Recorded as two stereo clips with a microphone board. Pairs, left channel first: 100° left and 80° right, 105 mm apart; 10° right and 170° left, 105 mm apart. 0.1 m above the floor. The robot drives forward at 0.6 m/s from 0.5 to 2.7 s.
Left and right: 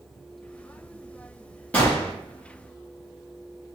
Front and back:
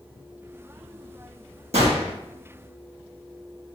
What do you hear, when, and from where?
1.7 s a gunshot: 175° left, 1.7 m